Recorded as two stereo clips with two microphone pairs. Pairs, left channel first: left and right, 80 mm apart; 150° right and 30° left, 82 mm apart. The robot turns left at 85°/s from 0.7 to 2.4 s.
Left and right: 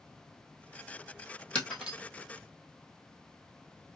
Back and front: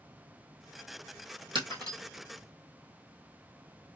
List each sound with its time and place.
1.6 s breaking glass: 15° left, 2 m; by 2.0 s 20° right, 2 m